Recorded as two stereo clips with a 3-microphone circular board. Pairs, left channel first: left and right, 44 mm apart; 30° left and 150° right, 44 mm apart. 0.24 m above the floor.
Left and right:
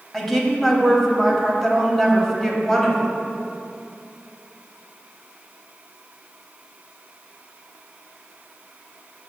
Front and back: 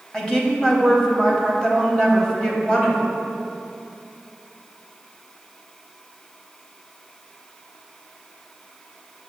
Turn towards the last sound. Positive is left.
turn(degrees=25)